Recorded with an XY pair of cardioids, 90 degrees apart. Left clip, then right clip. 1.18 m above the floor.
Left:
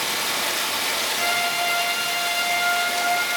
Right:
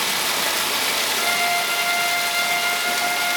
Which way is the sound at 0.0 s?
50° right.